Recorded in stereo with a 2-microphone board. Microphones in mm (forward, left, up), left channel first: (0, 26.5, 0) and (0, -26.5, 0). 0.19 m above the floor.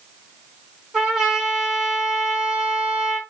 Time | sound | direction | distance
0.9 | a trumpet | 10° right (ahead or behind) | 2.0 m